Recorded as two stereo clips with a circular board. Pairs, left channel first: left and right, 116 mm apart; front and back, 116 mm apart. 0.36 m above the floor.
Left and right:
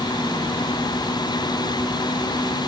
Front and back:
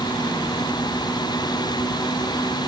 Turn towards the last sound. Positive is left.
No sound to turn to.